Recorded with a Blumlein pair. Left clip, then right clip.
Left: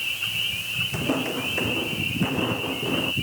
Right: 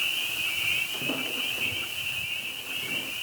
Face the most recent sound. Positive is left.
turn(degrees=35)